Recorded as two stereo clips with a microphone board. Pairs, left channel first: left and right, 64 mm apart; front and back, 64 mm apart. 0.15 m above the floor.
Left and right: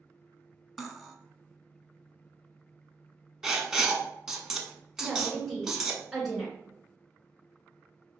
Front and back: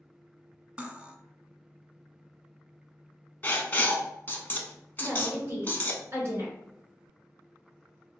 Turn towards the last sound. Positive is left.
turn(degrees=180)